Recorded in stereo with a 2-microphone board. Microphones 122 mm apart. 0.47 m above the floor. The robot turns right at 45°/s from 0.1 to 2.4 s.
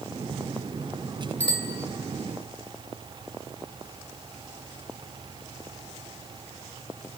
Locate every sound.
1.4 s a bicycle bell: 15° left (ahead or behind), 3 m; by 1.8 s 5° right (ahead or behind), 3 m